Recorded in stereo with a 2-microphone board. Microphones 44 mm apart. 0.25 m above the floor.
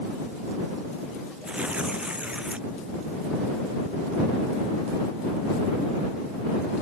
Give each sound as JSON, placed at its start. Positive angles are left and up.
{"t": 1.5, "sound": "tearing paper", "side_deg": -25}